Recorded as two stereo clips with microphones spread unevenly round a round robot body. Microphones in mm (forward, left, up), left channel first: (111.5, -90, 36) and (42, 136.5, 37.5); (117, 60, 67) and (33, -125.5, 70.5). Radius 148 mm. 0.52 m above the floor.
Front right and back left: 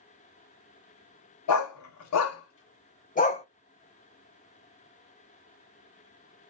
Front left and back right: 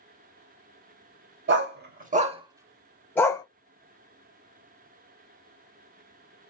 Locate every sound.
1.5 s a dog barking: 85° right, 0.9 m; by 3.5 s 5° right, 0.9 m